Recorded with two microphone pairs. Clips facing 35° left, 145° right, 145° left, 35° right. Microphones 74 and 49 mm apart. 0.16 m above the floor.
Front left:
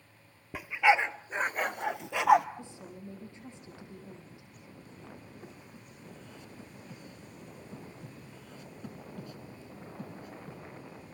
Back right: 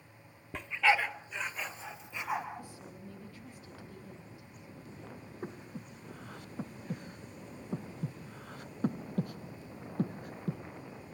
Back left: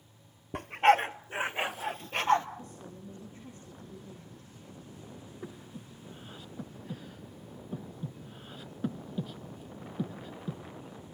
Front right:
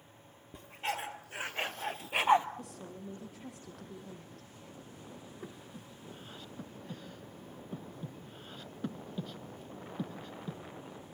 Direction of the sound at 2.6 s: 30° right.